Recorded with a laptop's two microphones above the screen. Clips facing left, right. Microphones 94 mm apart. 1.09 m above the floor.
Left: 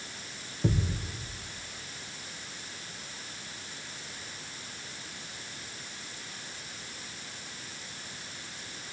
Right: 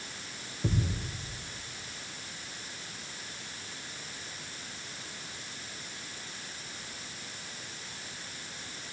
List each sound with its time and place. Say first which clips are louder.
0.6 s a thud: left 2 dB; 10° left (ahead or behind), 3 m